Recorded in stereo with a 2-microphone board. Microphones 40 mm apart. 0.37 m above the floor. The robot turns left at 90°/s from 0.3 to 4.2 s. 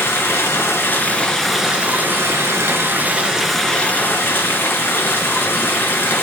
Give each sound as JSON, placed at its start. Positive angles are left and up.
{"t": 0.0, "sound": "running water", "azimuth_deg": 110, "distance_m": 2.5}